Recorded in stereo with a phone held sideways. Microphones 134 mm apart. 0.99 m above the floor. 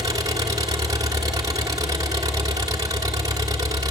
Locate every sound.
0.0 s an engine running: 30° right (ahead or behind), 1.9 m